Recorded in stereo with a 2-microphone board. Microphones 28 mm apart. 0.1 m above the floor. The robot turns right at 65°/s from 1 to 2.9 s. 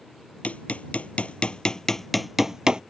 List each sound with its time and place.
0.4 s hammering: 55° left (ahead or behind); by 2.8 s 35° right (ahead or behind)